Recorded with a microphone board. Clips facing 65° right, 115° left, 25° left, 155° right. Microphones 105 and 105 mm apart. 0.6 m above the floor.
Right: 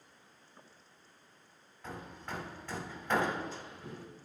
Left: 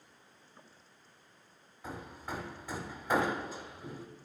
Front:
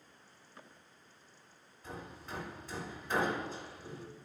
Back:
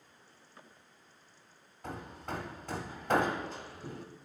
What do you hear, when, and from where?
1.8 s hammering: 170° right, 1.1 m